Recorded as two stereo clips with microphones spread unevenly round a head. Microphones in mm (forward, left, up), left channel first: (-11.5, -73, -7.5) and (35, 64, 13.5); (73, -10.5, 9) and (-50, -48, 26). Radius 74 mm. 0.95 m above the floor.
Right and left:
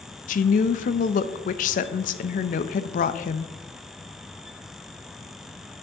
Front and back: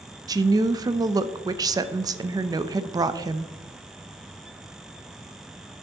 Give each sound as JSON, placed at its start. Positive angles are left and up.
{"t": 0.3, "sound": "a woman speaking", "azimuth_deg": -100, "distance_m": 0.5}